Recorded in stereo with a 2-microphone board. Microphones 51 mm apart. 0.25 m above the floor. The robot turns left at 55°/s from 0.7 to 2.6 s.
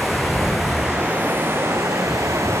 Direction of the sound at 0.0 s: 5° right.